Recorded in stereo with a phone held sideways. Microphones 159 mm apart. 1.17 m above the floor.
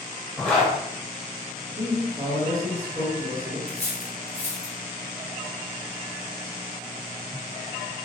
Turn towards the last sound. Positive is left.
turn(degrees=45)  # may be behind; listen again after turning